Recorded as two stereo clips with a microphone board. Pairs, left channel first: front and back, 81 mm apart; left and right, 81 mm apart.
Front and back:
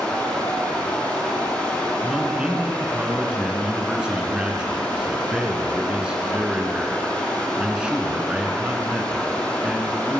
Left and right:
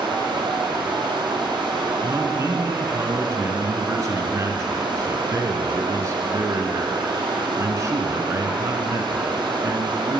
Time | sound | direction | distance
0.0 | running water | 70° right | 3 m
2.0 | a man speaking | 110° right | 1.9 m